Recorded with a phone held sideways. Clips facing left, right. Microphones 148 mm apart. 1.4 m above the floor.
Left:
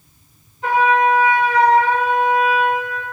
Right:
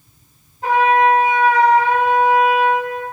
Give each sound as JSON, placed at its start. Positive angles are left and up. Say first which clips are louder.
{"t": 0.6, "sound": "a trumpet", "louder": "right 2 dB", "side_deg": -45, "distance_m": 2.0}